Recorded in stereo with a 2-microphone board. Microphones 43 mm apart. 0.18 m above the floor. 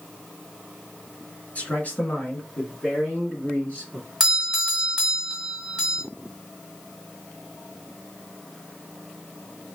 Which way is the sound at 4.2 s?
10° right (ahead or behind).